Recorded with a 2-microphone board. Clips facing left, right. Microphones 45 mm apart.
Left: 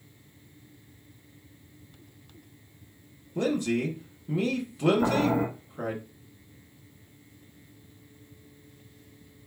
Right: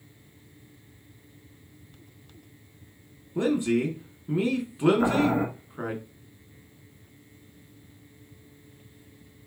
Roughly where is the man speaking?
Right.